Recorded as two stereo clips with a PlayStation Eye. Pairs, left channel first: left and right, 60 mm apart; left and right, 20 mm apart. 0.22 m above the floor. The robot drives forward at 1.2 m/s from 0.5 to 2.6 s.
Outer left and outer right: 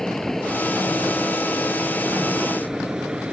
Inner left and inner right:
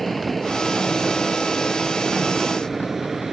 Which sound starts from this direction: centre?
An aircraft, at 0.0 s.